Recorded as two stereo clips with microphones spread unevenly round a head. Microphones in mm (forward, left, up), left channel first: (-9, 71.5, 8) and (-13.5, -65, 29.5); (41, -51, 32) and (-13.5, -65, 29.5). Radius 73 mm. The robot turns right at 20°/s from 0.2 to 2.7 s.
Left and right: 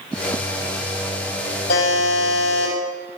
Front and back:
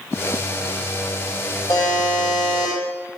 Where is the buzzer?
55° left, 5 m; by 2.8 s 75° left, 5 m.